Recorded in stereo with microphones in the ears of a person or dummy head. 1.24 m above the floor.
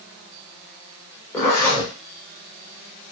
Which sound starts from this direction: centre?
A zipper, at 1.3 s.